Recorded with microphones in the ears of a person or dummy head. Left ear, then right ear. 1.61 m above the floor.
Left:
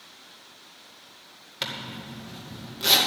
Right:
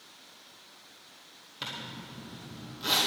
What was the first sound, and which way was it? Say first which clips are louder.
A zipper: left 6 dB; 25° left (ahead or behind).